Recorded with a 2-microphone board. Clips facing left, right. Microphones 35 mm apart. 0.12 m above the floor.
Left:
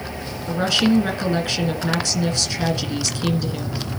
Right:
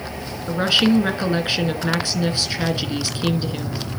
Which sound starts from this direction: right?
A woman speaking, at 0.5 s.